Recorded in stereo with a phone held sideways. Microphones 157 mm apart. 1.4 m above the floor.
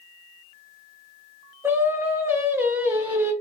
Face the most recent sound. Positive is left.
turn(degrees=-15)  # may be behind; listen again after turning